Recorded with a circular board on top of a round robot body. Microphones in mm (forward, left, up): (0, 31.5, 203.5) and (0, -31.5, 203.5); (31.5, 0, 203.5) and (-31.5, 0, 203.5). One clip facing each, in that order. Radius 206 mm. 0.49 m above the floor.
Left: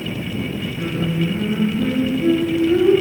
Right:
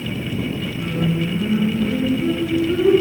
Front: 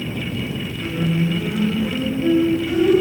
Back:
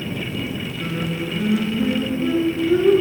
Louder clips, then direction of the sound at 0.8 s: Even, front 6 dB; 65° left.